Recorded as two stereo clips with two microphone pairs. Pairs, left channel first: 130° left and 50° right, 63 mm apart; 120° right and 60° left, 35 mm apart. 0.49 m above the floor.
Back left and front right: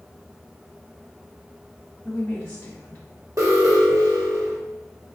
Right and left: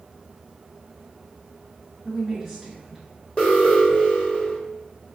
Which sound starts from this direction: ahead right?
An alarm, at 3.4 s.